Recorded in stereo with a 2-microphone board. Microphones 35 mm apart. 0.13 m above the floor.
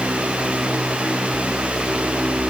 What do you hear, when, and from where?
Only background noise.